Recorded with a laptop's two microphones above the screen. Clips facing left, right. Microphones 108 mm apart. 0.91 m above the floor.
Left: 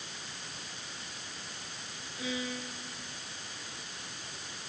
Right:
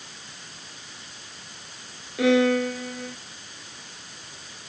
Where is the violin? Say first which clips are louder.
Right 19 dB; 75° right (ahead or behind).